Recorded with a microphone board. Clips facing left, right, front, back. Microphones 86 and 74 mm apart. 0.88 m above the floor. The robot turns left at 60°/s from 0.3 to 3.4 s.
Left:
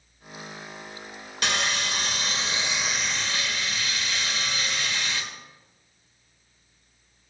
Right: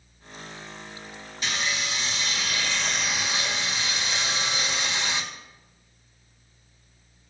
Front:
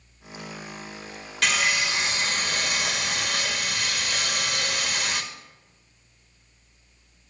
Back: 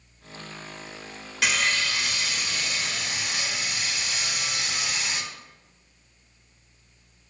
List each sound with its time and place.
1.4 s sawing: 95° left, 1.5 m; by 5.2 s 20° right, 1.5 m